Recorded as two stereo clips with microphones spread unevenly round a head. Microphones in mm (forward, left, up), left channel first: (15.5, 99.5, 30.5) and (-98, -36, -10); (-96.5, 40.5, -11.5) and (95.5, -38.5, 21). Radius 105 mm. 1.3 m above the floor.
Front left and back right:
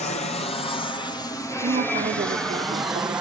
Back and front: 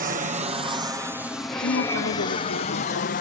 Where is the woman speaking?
175° right.